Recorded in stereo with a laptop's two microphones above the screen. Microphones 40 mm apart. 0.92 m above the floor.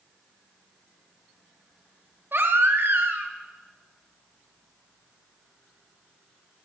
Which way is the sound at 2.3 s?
70° right (ahead or behind).